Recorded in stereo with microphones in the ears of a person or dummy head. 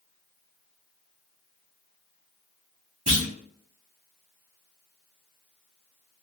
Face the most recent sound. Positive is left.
turn(degrees=-20)  # may be behind; listen again after turning